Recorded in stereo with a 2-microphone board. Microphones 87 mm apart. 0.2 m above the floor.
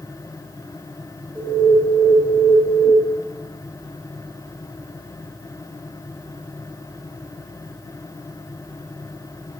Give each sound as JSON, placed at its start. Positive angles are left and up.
{"t": 1.4, "sound": "an alarm", "side_deg": 15, "distance_m": 0.8}